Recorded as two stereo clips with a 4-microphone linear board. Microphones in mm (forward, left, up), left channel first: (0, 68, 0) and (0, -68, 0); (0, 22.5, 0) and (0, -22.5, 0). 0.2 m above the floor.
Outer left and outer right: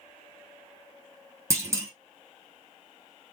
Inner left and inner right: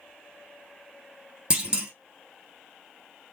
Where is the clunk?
20° right (ahead or behind), 1.3 m.